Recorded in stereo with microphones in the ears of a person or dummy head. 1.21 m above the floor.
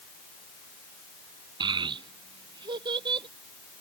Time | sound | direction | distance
1.6 | a child speaking | 30° right (ahead or behind) | ?